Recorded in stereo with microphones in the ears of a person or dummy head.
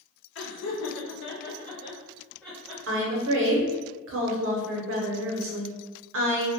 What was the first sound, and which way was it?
Laughter, 65° left (ahead or behind).